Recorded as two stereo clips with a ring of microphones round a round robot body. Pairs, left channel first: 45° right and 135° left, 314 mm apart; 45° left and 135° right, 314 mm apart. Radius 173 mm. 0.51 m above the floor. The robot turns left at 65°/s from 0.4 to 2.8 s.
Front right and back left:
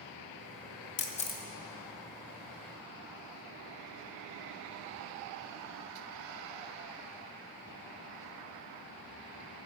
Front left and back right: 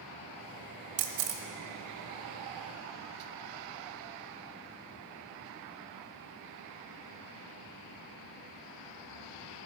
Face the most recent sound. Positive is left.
turn(degrees=140)